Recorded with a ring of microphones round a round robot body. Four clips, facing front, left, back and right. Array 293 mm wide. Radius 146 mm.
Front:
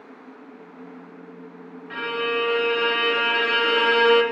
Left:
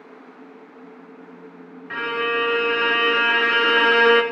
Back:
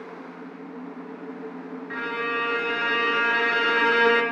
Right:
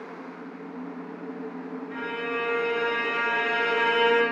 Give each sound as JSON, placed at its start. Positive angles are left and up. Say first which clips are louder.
{"t": 1.9, "sound": "a violin", "louder": "left 8 dB, front 3 dB", "azimuth_deg": 100, "distance_m": 1.0}